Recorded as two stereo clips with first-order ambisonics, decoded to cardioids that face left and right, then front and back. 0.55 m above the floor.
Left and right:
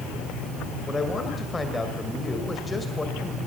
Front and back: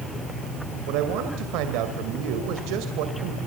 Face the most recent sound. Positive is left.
turn(degrees=170)